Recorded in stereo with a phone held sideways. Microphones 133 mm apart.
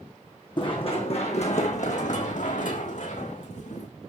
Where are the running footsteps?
40° left (ahead or behind), 4 m; by 3.9 s 65° left (ahead or behind), 5 m.